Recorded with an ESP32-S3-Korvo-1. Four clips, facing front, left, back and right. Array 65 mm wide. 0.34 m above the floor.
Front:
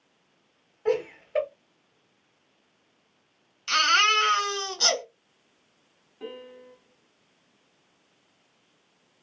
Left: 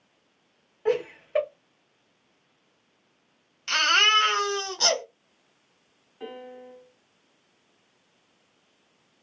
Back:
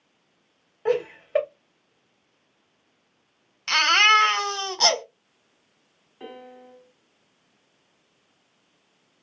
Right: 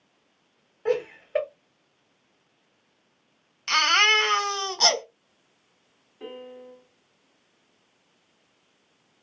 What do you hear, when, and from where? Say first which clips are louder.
0.8 s laughter: even, back 2 dB; 165° right, 1.8 m
3.7 s a baby crying: right 1 dB, back 3 dB; 155° right, 1.7 m
6.2 s a piano: even, front 1 dB; 150° left, 2.0 m